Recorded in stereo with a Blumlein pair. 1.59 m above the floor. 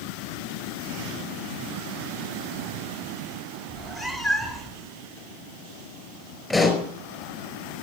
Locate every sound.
3.7 s a cat meowing: 10° left, 2.5 m
6.5 s a pop: 10° left, 4 m